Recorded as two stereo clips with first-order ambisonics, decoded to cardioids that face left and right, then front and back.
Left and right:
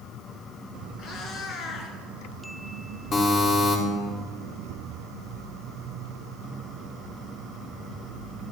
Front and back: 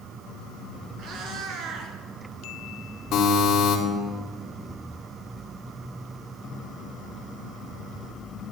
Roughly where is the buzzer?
Ahead left.